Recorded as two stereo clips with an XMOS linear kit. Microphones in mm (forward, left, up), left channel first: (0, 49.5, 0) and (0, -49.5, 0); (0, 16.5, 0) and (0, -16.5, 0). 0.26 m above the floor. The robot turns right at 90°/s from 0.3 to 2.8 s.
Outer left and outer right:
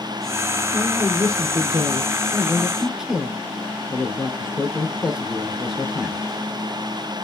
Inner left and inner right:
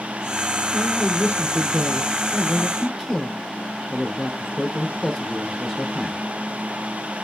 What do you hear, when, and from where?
0.7 s a man speaking: 165° left, 2.5 m; by 6.2 s 5° right, 2.5 m